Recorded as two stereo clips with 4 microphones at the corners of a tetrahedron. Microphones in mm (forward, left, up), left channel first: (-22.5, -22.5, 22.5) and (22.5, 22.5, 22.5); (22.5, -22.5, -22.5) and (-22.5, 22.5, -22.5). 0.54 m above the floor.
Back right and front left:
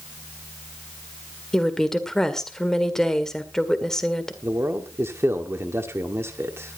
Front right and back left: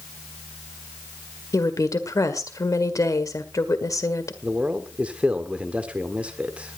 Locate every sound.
1.5 s a woman speaking: 55° right, 1.7 m
4.4 s a man speaking: 70° left, 1.3 m